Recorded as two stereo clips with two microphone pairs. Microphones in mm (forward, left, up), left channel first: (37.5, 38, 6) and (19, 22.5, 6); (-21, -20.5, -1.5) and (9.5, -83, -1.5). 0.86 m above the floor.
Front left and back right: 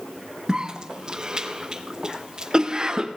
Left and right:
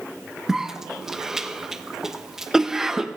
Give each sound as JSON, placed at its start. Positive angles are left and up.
{"t": 0.5, "sound": "a cough", "azimuth_deg": -135, "distance_m": 0.6}